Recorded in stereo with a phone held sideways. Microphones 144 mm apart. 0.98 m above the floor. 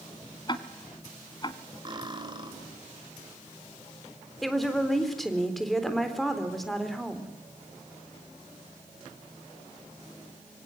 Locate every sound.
0.5 s ticking: 35° left (ahead or behind), 1.4 m
1.9 s cutlery clinking: 30° right (ahead or behind), 2.5 m
4.4 s a woman speaking: centre (ahead or behind), 3.5 m